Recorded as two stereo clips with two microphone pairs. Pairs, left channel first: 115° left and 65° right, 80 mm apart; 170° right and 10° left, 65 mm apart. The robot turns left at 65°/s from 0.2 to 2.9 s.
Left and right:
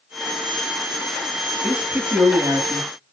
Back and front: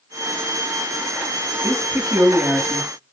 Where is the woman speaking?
10° left, 1.3 m; by 2.9 s 70° right, 1.3 m.